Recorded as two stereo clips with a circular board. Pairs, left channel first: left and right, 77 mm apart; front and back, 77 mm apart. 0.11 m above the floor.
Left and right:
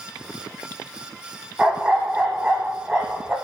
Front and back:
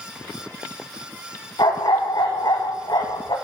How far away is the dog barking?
About 1.2 m.